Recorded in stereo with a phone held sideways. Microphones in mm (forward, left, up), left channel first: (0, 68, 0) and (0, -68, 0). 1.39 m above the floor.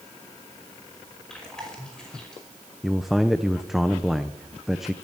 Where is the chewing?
5° left (ahead or behind), 5.5 m.